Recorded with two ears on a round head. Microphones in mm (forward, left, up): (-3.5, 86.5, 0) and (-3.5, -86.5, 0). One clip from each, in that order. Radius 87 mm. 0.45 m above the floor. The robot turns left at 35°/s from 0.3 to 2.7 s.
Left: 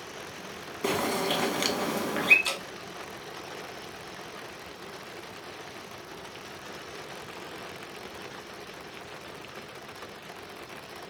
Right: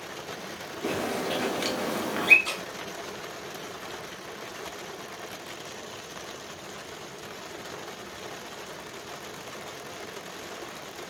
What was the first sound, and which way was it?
A bird, 50° left.